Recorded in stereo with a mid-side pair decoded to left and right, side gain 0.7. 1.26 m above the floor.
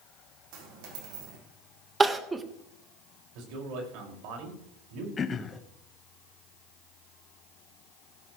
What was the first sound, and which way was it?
A dropped coin, 70° right.